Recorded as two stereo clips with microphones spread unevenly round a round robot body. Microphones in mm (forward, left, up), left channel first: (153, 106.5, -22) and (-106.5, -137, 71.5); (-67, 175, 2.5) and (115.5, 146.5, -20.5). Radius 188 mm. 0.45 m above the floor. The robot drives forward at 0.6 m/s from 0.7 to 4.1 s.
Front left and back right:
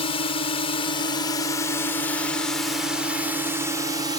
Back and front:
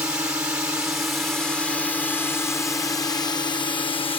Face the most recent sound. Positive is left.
turn(degrees=125)